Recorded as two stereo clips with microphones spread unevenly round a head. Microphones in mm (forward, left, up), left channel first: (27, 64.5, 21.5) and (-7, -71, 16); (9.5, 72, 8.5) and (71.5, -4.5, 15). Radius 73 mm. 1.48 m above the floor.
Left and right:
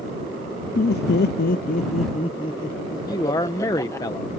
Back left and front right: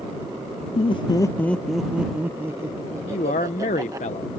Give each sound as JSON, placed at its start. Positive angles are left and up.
{"t": 0.8, "sound": "laughter", "azimuth_deg": 105}
{"t": 3.1, "sound": "a man speaking", "azimuth_deg": 140}